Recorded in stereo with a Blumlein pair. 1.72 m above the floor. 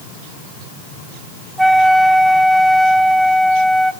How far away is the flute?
About 0.6 m.